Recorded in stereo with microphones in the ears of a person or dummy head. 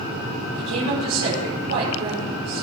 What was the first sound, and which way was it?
A woman speaking, 75° right (ahead or behind).